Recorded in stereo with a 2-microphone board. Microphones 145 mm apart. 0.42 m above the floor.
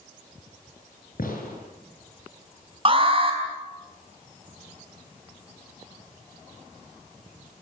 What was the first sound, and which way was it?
A gunshot, 80° left.